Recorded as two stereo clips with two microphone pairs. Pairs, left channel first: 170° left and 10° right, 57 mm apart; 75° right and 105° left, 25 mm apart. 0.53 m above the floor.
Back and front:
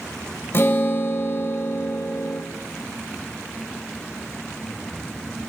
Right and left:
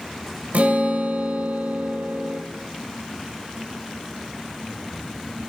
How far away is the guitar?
About 0.8 m.